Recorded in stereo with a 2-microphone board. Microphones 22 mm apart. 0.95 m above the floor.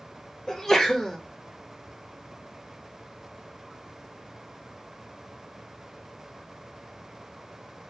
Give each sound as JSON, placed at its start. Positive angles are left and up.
{"t": 0.5, "sound": "a sneeze", "side_deg": 15, "distance_m": 0.8}